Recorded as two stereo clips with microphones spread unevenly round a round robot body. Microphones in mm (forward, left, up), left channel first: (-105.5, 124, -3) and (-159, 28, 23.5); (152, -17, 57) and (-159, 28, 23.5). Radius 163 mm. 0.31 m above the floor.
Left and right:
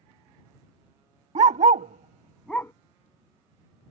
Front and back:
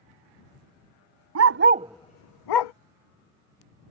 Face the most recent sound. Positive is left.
turn(degrees=-15)